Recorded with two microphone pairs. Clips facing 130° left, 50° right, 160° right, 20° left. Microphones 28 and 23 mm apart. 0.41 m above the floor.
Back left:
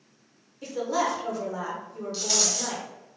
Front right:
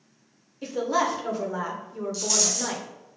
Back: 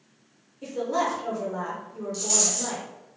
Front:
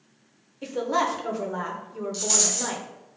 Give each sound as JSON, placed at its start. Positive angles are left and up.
{"t": 0.6, "sound": "a woman speaking", "azimuth_deg": 20, "distance_m": 0.9}
{"t": 2.1, "sound": "a rattle", "azimuth_deg": 80, "distance_m": 1.0}